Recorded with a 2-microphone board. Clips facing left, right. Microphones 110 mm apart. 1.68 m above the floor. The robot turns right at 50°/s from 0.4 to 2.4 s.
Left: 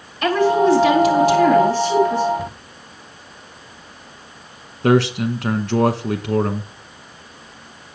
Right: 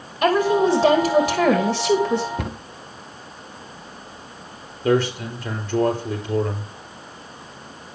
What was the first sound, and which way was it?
A woman speaking, 145° right.